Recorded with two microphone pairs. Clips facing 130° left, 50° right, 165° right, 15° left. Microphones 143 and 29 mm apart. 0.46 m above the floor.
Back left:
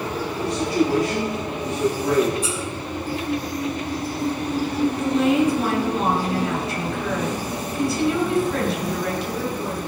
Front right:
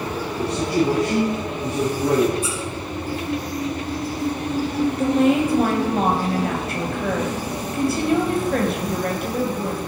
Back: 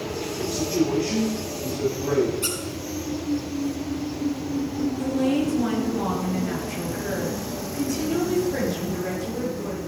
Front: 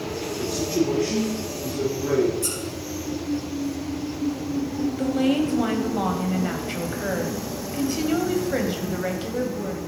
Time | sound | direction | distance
0.4 | a man speaking | 60° right | 6.5 m
2.4 | a squeak | 145° left | 3.5 m
5.0 | a woman speaking | 20° right | 2.5 m